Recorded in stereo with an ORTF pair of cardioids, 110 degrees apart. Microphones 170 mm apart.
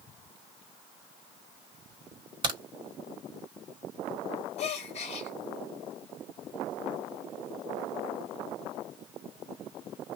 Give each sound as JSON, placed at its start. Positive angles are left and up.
{"t": 2.4, "sound": "a crack", "azimuth_deg": -30, "distance_m": 1.6}
{"t": 4.6, "sound": "a gasp", "azimuth_deg": 40, "distance_m": 1.2}